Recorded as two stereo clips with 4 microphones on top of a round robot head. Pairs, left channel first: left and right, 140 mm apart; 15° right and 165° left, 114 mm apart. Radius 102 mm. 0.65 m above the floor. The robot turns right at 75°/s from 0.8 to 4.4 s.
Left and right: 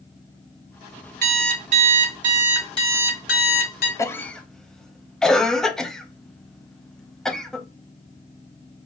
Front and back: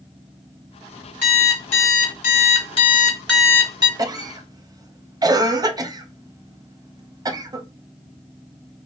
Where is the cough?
145° left, 0.6 m; by 7.7 s 175° left, 0.6 m.